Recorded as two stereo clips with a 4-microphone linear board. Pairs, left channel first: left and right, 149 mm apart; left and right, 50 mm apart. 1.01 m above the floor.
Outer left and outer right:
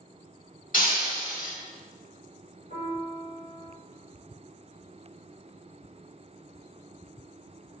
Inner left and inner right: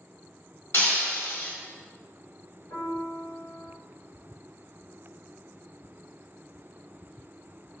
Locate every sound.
0.7 s breaking glass: 65° left (ahead or behind), 1.7 m
2.7 s a piano: 65° left (ahead or behind), 2.0 m